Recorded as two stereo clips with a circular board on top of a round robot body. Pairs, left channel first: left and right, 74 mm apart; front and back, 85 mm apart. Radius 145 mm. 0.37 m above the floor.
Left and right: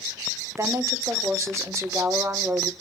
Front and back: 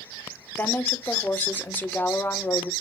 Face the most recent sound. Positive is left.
turn(degrees=-60)